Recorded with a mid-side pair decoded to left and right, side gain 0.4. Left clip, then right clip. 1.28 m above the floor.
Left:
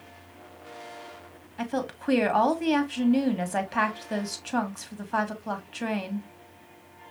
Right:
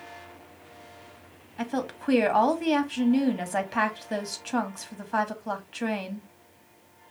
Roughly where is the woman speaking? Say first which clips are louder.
Even; ahead.